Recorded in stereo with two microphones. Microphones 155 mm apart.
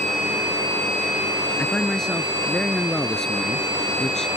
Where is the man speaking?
5° left (ahead or behind).